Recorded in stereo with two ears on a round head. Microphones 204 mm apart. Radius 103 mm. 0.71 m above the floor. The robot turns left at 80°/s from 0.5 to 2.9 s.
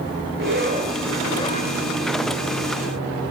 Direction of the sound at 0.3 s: 125° right.